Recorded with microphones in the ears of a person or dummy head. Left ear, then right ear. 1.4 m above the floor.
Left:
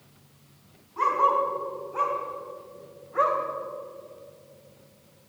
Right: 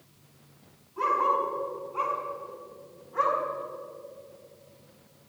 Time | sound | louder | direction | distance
1.0 | a dog barking | left 3 dB | 75° left (ahead or behind) | 5 m